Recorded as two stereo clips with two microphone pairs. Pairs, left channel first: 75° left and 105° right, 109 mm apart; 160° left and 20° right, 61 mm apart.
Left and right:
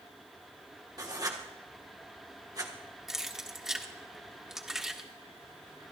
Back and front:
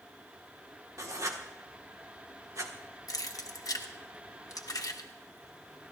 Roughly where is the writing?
Ahead right.